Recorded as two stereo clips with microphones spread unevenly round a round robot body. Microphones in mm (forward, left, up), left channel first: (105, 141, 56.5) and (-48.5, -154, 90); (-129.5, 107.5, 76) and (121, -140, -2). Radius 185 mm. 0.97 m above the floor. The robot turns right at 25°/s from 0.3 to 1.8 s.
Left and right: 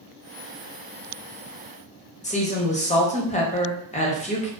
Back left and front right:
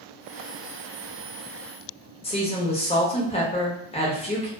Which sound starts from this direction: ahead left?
A woman speaking, at 2.2 s.